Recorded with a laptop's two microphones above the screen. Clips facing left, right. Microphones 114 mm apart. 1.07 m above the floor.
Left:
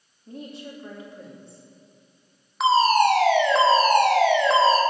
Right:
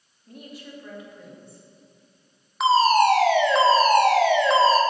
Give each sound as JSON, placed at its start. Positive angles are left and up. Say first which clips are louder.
{"t": 0.3, "sound": "a woman speaking", "louder": "left 4 dB", "side_deg": 30, "distance_m": 2.5}
{"t": 2.6, "sound": "a fire alarm", "louder": "right 1 dB", "side_deg": 0, "distance_m": 1.1}